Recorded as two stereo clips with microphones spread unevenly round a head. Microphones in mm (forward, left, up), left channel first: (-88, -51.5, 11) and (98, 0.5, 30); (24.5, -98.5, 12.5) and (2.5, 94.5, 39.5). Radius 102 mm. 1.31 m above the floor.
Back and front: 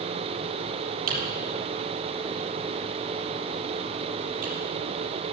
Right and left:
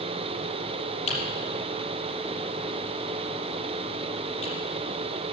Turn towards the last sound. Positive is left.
turn(degrees=-25)